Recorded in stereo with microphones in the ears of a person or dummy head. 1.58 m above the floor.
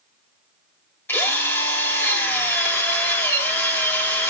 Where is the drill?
15° left (ahead or behind), 5 m.